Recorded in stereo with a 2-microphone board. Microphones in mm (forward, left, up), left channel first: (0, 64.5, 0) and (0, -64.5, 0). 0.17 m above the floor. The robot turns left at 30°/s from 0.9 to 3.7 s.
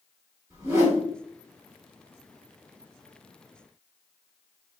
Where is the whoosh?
25° right (ahead or behind), 1.7 m.